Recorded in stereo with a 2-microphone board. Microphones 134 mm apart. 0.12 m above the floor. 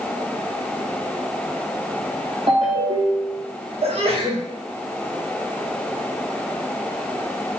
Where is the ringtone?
45° right (ahead or behind), 3 m.